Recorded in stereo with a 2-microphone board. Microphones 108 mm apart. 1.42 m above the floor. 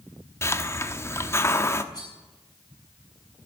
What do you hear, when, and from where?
0.4 s a hiss: 25° left (ahead or behind), 1.1 m
1.9 s cutlery clinking: 35° left (ahead or behind), 7 m